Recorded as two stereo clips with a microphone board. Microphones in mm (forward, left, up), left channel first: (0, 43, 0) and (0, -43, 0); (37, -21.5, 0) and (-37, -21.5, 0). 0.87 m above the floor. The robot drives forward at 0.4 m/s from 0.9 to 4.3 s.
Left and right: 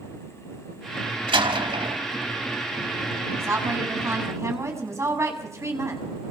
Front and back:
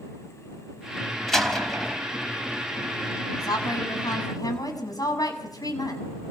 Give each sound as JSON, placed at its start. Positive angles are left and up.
{"t": 1.3, "sound": "a door slam", "azimuth_deg": -85, "distance_m": 4.5}
{"t": 3.4, "sound": "a woman speaking", "azimuth_deg": -30, "distance_m": 7.5}